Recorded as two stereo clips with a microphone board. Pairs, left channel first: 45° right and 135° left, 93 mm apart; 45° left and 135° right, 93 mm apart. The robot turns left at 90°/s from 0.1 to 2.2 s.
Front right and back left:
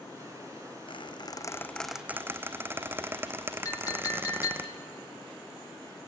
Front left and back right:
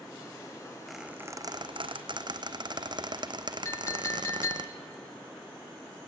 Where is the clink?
5° right, 1.2 m.